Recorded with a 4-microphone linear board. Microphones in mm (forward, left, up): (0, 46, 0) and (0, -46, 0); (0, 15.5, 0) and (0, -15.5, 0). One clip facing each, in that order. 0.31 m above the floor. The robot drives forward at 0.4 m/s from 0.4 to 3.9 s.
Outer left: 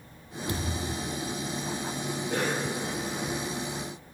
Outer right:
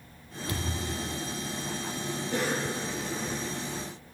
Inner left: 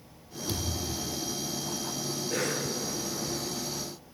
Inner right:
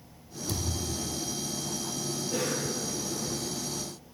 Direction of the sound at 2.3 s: 55° left (ahead or behind).